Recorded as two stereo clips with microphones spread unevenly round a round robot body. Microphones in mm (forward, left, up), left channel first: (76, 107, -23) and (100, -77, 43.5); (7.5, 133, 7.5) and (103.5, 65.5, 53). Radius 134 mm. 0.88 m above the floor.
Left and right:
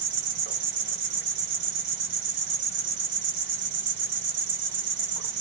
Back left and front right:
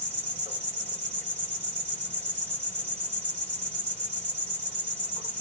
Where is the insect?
95° right, 1.3 m.